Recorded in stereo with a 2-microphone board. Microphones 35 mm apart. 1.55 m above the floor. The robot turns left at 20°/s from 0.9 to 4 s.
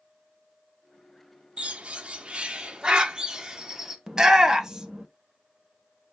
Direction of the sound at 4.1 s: 20° right (ahead or behind).